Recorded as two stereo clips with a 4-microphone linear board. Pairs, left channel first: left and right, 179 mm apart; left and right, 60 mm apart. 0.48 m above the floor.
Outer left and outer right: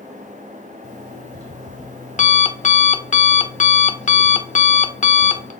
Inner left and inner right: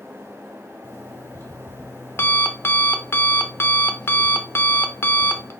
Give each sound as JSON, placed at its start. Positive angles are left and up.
{"t": 0.8, "sound": "an alarm clock", "side_deg": 40, "distance_m": 0.5}